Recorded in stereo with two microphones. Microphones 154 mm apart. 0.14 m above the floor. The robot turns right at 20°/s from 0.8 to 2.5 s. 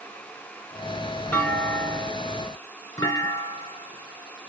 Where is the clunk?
10° left (ahead or behind), 1.9 m; by 4.5 s 25° left (ahead or behind), 1.9 m.